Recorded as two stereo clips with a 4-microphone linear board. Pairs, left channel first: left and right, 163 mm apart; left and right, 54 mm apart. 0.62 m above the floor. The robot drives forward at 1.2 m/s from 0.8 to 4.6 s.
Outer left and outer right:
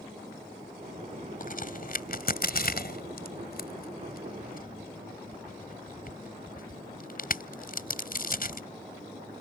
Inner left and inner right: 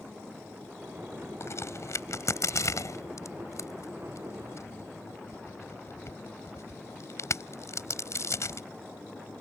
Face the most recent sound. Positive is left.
turn(degrees=65)  # may be behind; listen again after turning